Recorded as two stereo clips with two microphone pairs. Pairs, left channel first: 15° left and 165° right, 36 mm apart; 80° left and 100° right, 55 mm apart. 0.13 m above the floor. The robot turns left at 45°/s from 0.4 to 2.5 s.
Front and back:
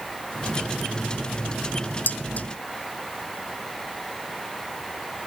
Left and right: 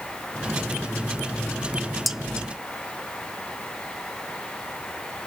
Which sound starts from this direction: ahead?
Dishes clattering, at 2.1 s.